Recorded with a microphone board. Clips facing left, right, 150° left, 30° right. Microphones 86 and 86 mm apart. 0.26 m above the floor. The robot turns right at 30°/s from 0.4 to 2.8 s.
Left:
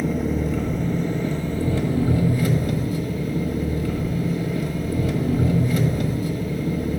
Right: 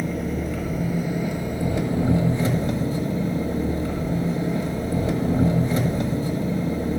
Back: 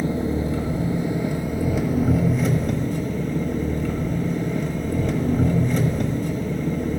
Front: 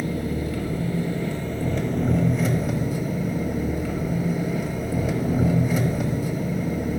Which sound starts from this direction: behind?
An engine running, at 0.0 s.